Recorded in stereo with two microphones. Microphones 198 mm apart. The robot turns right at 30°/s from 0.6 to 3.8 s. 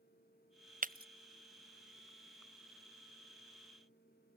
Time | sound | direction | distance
0.8 | breaking glass | 40° right (ahead or behind) | ?